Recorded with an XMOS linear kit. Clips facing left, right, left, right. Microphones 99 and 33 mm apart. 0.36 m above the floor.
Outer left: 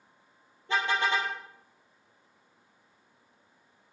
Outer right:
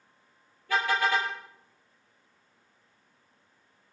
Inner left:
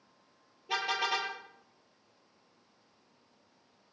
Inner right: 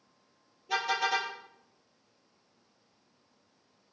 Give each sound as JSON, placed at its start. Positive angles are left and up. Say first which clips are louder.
{"t": 0.7, "sound": "a car horn", "louder": "outer right 1 dB, inner right 2 dB", "side_deg": 25, "distance_m": 5.5}